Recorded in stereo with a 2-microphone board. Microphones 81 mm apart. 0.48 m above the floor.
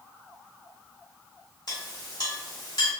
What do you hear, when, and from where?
1.7 s a clink: 60° left (ahead or behind), 1.2 m